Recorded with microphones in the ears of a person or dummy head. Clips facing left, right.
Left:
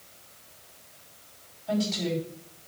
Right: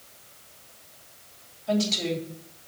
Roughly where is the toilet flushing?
No toilet flushing in this recording.